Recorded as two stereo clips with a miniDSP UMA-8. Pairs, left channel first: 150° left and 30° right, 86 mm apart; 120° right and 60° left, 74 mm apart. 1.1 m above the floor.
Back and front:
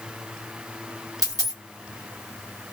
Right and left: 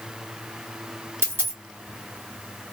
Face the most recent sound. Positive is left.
turn(degrees=10)